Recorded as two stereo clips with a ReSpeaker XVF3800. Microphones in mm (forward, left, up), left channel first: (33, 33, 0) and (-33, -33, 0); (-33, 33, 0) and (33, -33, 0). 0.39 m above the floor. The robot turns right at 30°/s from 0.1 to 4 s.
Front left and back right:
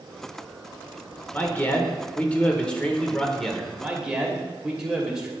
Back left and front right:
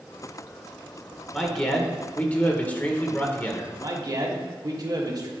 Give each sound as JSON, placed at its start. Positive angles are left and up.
{"t": 1.3, "sound": "a man speaking", "azimuth_deg": 60, "distance_m": 0.8}
{"t": 3.8, "sound": "a man speaking", "azimuth_deg": -60, "distance_m": 1.1}